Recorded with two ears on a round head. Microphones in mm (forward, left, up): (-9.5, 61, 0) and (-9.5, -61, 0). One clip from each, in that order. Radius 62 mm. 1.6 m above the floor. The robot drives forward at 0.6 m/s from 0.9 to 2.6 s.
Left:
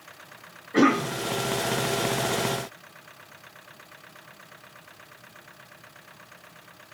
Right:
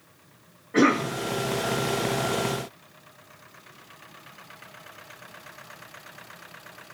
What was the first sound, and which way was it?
A cough, centre (ahead or behind).